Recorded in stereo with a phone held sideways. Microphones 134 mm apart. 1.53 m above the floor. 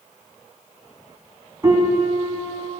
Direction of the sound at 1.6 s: 25° right (ahead or behind).